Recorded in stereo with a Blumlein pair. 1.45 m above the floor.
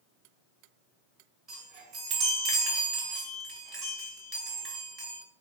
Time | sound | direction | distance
1.5 | a chime | 30° right | 1.2 m